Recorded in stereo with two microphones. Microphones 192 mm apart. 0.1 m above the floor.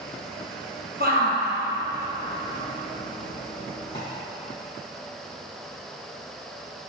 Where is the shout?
55° right (ahead or behind), 3 m; by 4.0 s 70° right (ahead or behind), 4.5 m.